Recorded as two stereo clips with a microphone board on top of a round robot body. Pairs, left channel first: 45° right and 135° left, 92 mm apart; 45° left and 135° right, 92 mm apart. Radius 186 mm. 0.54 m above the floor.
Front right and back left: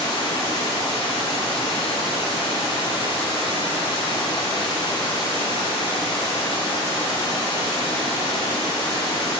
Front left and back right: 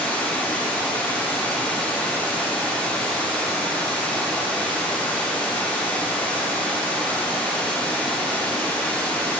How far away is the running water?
About 4.5 m.